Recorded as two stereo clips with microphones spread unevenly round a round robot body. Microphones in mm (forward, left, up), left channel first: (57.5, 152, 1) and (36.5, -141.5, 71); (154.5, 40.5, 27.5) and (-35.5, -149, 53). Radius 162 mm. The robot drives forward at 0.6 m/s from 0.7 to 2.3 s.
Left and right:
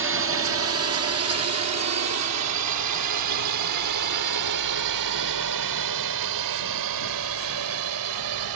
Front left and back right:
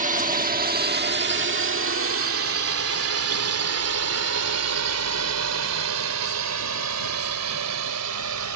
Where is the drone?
105° right; by 8.6 s 120° right.